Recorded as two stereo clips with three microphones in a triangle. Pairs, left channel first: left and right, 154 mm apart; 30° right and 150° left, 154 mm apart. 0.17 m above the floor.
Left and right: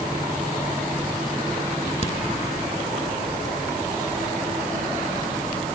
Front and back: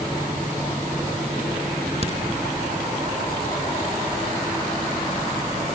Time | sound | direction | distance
2.0 | a crack | 115° left | 2.5 m